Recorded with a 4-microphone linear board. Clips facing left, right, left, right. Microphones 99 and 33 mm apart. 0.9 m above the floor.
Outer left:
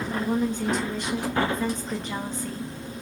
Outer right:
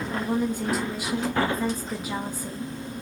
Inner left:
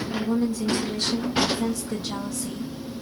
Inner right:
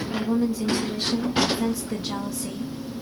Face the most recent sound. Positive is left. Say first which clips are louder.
# even, inner right 1 dB
turn(degrees=-10)  # may be behind; listen again after turning